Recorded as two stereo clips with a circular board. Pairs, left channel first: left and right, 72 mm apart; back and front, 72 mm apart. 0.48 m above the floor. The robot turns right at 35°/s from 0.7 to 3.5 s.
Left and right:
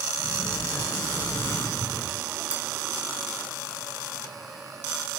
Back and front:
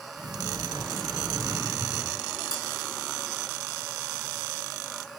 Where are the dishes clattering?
20° right, 6 m; by 2.6 s 15° right, 6 m.